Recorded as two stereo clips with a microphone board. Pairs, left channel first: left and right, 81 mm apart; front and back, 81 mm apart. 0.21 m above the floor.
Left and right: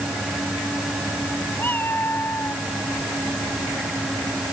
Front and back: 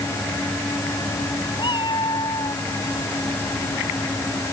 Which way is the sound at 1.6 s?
25° left.